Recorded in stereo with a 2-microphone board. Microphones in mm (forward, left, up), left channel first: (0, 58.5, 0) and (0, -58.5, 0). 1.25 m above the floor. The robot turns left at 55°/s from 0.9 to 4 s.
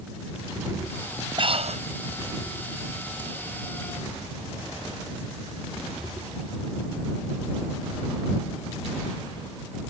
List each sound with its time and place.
1.4 s breathing: 45° right (ahead or behind); by 1.8 s 70° right (ahead or behind)